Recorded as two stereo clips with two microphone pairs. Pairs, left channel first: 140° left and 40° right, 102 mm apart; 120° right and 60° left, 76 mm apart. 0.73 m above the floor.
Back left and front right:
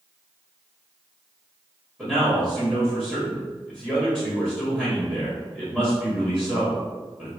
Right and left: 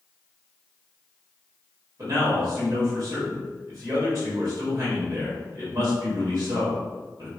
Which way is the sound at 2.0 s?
35° left.